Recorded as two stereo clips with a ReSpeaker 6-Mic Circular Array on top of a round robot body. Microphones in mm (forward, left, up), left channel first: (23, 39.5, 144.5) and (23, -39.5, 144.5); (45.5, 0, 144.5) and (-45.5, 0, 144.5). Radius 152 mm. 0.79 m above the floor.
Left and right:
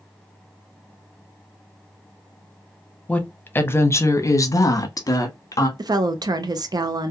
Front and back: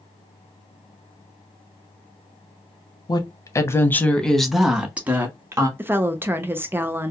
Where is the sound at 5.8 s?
115° right, 0.5 m.